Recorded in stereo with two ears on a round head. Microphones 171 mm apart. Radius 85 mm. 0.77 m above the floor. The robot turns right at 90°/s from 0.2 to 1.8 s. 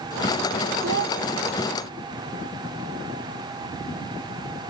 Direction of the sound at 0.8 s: 75° right.